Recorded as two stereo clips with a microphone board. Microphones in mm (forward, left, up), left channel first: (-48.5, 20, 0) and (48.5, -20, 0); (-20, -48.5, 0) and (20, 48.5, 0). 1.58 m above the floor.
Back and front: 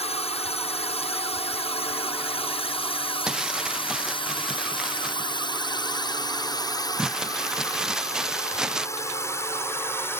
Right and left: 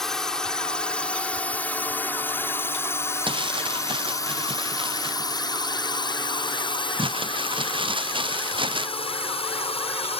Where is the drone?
160° left; by 10.2 s 135° right.